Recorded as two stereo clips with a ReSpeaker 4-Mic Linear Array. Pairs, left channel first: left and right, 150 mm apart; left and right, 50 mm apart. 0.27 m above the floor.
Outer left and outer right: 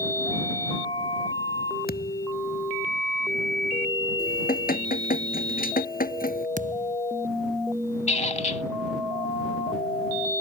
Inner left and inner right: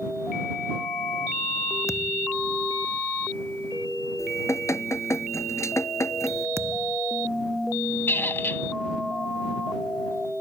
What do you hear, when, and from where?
1.9 s a thud: 85° left
4.2 s dripping: 75° left (ahead or behind)
6.6 s a thud: 60° right (ahead or behind)
8.1 s a squeak: 50° left (ahead or behind)